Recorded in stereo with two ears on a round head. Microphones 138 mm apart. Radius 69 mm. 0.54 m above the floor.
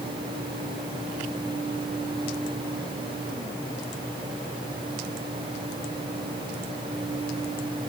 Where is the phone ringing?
I don't hear a phone ringing.